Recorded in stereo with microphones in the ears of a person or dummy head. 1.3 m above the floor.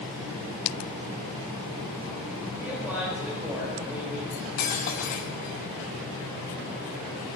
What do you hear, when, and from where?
2.6 s a man speaking: 10° right (ahead or behind), 4.5 m
4.3 s cutlery clinking: 20° left (ahead or behind), 0.6 m